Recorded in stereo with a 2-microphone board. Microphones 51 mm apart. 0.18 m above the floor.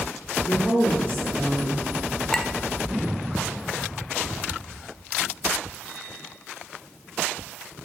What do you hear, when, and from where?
0.5 s a woman speaking: 50° left (ahead or behind), 2.5 m; by 1.8 s 20° left (ahead or behind), 2.5 m
2.3 s a clink: 15° left (ahead or behind), 0.6 m